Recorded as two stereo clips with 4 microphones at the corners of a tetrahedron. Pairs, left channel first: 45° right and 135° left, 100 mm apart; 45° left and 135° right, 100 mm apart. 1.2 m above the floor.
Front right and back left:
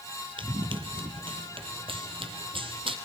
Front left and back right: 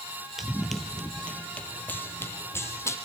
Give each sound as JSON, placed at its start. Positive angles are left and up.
{"t": 0.4, "sound": "running footsteps", "azimuth_deg": 140, "distance_m": 1.8}